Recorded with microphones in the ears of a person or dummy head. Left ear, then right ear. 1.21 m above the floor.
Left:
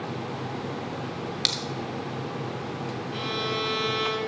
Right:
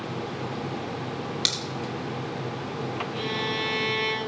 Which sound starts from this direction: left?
A violin, at 3.1 s.